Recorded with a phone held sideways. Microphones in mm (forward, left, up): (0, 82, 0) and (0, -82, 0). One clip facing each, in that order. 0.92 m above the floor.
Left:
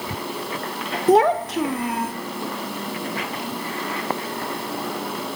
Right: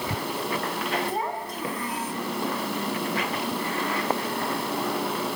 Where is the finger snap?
No finger snap in this recording.